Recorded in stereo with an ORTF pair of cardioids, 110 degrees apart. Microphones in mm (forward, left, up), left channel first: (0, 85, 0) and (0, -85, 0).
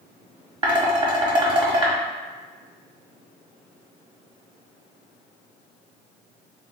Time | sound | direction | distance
0.6 | dishes clattering | 30° right | 1.2 m